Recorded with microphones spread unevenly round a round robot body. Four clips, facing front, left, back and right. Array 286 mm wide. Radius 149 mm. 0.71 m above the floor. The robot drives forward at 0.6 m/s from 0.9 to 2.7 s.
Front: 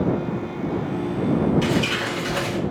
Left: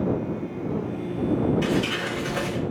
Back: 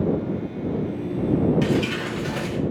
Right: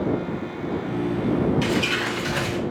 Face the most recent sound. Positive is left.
turn(degrees=-140)